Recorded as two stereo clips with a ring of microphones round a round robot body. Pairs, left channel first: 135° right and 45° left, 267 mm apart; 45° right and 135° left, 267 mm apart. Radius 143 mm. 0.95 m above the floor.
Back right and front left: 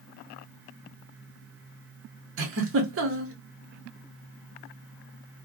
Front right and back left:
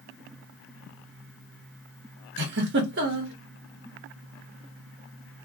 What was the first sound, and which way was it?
A giggle, 85° left.